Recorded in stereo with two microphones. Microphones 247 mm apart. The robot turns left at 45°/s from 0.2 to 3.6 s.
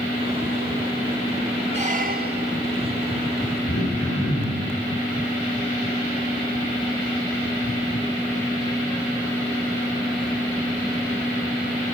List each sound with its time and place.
1.7 s a squeak: 35° right, 1.1 m; by 2.6 s 75° right, 1.1 m
3.7 s throat clearing: 75° left (ahead or behind), 4 m